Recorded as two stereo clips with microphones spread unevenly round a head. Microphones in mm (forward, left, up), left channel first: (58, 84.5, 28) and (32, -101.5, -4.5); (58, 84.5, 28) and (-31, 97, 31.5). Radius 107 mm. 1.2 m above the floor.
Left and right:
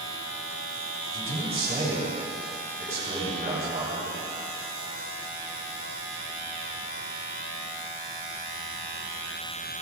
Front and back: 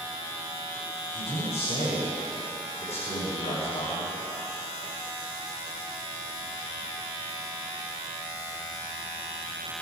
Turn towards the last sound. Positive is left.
turn(degrees=-40)